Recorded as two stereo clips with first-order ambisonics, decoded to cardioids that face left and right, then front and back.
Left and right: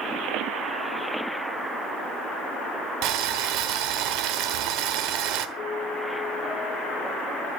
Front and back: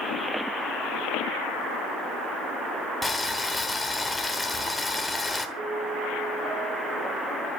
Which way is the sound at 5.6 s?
130° left.